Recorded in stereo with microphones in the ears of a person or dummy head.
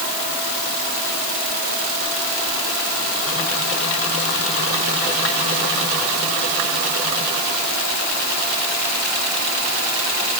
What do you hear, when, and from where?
Only background noise.